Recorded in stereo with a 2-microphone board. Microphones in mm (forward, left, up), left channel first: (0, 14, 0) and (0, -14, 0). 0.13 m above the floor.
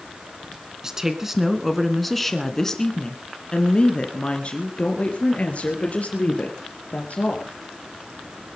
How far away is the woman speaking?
About 1.7 m.